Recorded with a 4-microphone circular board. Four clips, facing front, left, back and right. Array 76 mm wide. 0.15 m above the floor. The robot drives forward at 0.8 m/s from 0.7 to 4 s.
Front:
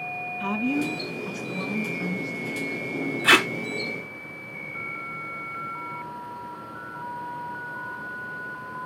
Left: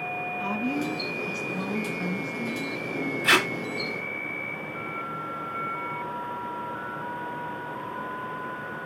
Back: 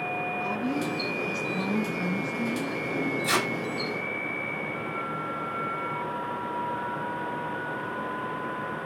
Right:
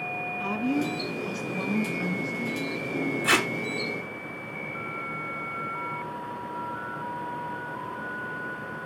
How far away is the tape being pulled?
About 2 m.